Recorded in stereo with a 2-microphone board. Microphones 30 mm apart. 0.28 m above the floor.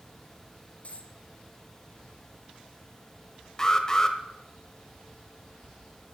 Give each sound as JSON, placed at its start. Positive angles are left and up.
{"t": 0.8, "sound": "a dropped coin", "side_deg": 50, "distance_m": 1.7}
{"t": 3.6, "sound": "an alarm", "side_deg": 20, "distance_m": 1.0}